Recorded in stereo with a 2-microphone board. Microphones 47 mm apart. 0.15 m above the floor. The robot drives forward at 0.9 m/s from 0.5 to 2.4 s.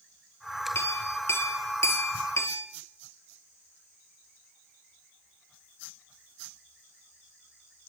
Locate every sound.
0.8 s a clink: 55° left (ahead or behind), 2.5 m; by 2.7 s 65° left (ahead or behind), 2 m